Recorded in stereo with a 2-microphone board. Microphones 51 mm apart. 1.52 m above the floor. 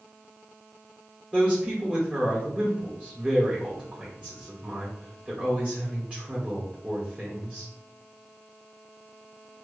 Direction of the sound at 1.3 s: 25° right (ahead or behind).